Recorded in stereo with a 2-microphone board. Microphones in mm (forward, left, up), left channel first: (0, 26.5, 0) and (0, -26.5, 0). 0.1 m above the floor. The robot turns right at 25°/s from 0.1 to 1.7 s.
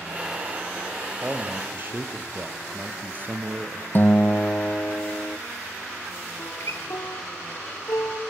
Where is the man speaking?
30° right (ahead or behind), 2.5 m; by 3.9 s 40° right (ahead or behind), 2.5 m.